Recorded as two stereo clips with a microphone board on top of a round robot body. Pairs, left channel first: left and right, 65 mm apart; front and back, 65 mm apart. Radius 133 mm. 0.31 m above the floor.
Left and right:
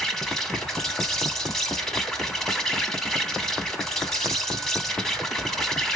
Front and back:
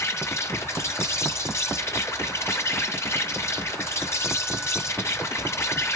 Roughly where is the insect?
Ahead.